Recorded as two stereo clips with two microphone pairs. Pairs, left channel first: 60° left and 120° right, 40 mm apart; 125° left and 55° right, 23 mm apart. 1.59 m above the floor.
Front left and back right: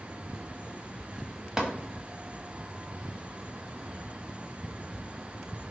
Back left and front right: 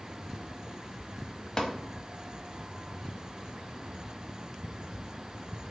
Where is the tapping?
170° left, 0.7 m.